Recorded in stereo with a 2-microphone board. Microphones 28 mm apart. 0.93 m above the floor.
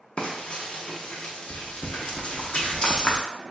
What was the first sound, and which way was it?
Frying, 40° left (ahead or behind).